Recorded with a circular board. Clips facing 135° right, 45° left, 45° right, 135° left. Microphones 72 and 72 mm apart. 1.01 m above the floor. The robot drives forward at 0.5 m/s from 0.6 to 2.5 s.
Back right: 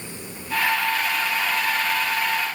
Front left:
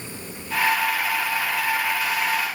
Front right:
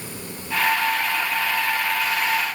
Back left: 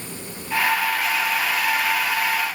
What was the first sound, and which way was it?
Only background noise.